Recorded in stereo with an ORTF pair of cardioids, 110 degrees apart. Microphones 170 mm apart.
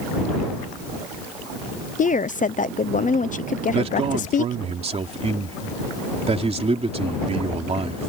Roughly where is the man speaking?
Ahead right.